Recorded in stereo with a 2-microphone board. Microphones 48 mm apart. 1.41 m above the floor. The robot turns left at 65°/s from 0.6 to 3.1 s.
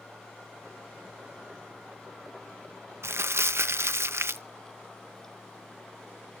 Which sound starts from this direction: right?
Crumpling, at 3.0 s.